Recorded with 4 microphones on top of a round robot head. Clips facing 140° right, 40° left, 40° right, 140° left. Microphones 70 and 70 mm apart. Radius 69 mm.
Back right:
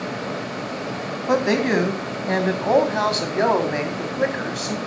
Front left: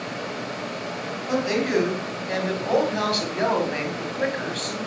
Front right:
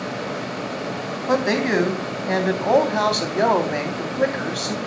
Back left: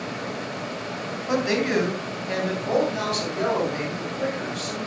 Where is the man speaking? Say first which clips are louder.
Back right 4 dB, front right 3 dB; 95° right, 3.5 m; by 4.8 s 55° right, 3.5 m.